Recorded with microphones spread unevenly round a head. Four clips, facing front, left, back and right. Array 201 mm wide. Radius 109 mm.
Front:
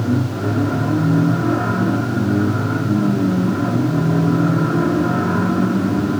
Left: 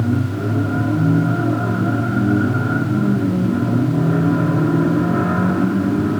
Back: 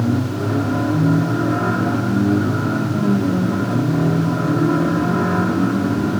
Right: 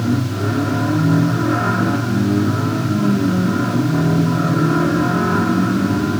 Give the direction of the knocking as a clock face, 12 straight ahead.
No knocking in this recording.